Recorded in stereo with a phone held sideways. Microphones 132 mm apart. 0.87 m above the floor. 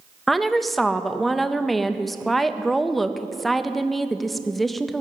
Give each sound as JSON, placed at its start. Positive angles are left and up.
{"t": 0.3, "sound": "a woman speaking", "side_deg": 0, "distance_m": 0.5}